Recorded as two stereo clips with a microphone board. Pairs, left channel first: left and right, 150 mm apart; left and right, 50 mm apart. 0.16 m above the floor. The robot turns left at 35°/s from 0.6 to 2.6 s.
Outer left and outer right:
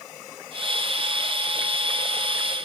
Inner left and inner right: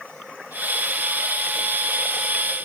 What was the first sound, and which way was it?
Only background noise.